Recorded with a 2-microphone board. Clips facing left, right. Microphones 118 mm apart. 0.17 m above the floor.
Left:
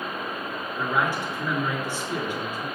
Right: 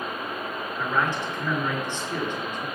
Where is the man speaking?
10° left (ahead or behind), 3 m.